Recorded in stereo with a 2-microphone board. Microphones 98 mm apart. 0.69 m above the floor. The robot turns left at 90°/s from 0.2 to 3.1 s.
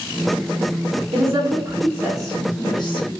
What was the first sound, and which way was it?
A woman speaking, 65° right (ahead or behind).